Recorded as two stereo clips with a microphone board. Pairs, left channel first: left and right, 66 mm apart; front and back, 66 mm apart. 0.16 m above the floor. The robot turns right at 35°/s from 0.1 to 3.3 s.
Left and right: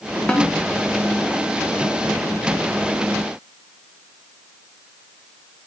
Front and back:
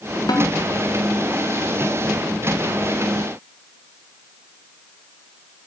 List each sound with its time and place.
0.3 s a snare drum: 20° left, 5 m; by 0.5 s 25° left, 5 m